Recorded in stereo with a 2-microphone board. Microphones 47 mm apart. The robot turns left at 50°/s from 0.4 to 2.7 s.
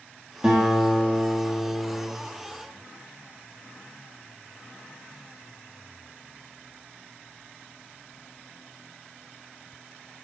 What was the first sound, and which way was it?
A guitar, 165° right.